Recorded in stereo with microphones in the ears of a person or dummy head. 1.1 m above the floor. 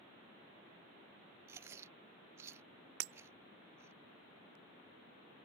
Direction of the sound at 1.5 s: 15° right (ahead or behind).